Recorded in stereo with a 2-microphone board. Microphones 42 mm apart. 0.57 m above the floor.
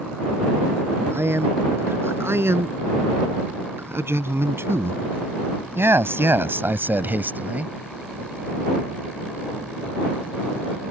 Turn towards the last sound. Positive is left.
turn(degrees=-35)  # may be behind; listen again after turning